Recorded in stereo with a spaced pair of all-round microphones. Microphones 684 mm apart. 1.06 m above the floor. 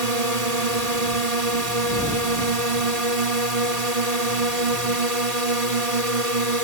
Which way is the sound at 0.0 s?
65° right (ahead or behind).